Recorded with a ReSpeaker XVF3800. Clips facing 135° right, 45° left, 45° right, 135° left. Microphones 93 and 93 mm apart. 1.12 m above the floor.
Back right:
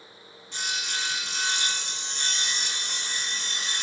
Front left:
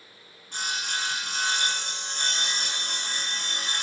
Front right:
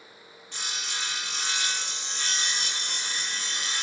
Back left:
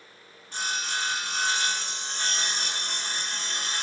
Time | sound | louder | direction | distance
0.5 | sawing | front left 2 dB, back left 6 dB | 85° left | 0.8 m